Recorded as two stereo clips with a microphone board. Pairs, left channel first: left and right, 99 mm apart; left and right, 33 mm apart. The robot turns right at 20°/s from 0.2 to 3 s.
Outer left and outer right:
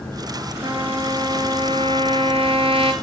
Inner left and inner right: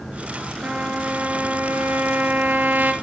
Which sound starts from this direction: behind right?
A trumpet, at 0.6 s.